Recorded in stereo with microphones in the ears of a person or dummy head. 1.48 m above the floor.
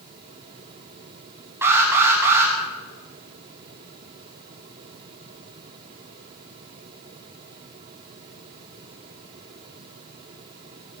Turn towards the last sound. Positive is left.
turn(degrees=-15)  # may be behind; listen again after turning